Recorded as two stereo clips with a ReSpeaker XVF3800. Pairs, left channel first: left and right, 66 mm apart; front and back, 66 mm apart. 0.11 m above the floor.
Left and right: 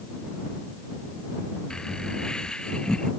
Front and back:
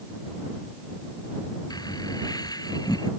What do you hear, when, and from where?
1.7 s laughter: 10° left; by 3.1 s 15° left